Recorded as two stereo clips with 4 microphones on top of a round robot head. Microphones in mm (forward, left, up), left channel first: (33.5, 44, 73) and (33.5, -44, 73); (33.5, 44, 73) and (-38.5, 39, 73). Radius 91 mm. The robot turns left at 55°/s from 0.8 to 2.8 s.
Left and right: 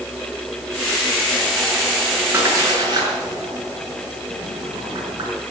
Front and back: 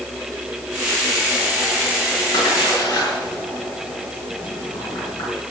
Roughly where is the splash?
Ahead right.